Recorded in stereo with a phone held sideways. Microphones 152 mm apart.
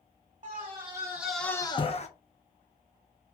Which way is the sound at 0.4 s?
40° right (ahead or behind).